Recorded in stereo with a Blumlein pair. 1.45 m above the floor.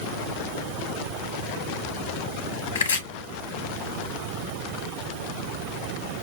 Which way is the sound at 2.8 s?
70° left.